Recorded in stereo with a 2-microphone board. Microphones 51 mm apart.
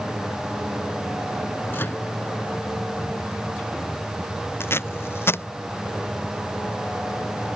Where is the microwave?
50° left (ahead or behind).